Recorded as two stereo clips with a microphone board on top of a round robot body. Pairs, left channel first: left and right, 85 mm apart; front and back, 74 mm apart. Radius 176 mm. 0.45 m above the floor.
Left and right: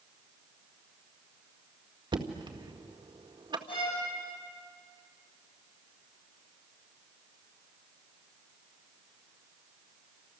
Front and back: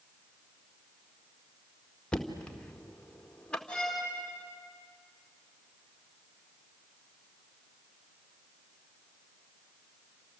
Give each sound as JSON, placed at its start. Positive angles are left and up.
{"t": 2.1, "sound": "knocking", "azimuth_deg": -75, "distance_m": 1.8}
{"t": 3.7, "sound": "a violin", "azimuth_deg": 80, "distance_m": 8.0}